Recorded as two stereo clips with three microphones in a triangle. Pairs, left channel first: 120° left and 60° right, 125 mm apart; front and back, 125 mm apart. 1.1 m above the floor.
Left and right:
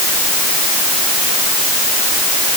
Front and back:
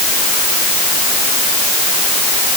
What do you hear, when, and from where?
Only background noise.